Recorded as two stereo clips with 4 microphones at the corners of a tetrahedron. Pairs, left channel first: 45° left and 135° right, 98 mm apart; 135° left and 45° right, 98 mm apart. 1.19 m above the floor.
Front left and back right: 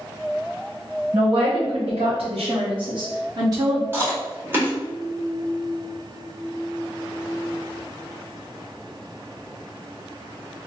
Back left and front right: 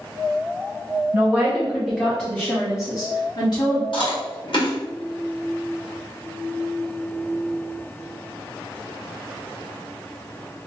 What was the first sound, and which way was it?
A woman speaking, 115° right.